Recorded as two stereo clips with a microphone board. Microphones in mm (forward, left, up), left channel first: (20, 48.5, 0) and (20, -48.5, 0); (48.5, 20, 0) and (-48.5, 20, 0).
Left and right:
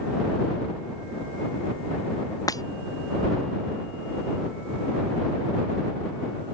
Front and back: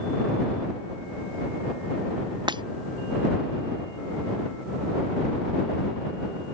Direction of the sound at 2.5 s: 140° left.